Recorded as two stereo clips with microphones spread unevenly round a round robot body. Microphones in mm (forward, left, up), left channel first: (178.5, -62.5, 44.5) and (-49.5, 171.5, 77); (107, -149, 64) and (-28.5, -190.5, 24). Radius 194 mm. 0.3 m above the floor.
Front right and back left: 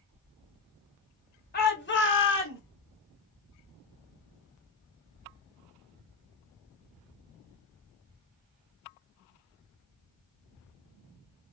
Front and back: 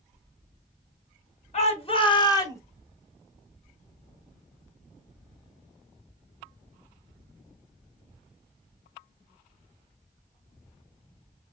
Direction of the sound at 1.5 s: 15° right.